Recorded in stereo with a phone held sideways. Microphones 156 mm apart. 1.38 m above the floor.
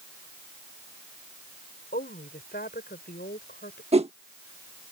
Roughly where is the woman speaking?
Left.